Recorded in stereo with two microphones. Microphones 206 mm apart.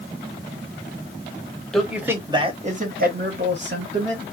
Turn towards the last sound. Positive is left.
turn(degrees=-70)  # may be behind; listen again after turning